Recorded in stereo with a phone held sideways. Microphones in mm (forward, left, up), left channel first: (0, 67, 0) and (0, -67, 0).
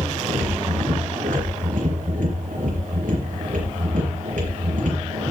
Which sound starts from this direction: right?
A machine running, at 0.0 s.